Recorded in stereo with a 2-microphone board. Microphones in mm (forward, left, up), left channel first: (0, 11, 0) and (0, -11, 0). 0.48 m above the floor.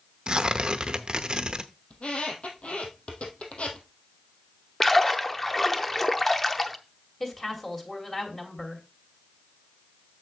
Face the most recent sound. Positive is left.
turn(degrees=20)  # may be behind; listen again after turning